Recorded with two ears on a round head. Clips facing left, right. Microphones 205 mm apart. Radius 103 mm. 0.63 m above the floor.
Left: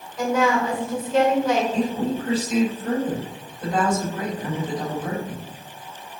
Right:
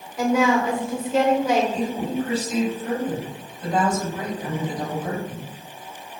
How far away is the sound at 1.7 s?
About 3.5 m.